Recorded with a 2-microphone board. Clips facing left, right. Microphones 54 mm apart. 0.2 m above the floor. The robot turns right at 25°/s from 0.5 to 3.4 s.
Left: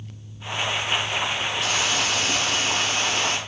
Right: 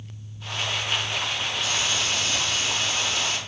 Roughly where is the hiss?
Left.